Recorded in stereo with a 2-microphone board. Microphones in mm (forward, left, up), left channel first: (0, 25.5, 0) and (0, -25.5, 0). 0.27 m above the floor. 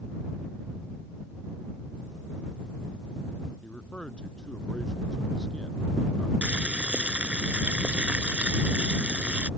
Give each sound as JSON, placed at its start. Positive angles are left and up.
{"t": 3.6, "sound": "a man speaking", "side_deg": 20}
{"t": 6.4, "sound": "boiling", "side_deg": -25}